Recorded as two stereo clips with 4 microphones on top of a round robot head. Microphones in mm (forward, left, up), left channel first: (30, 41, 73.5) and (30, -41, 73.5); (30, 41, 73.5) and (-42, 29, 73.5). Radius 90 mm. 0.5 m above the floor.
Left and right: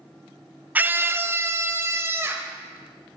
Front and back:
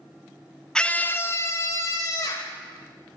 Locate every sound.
0.8 s a scream: 55° right, 0.8 m; by 2.5 s 30° right, 2.5 m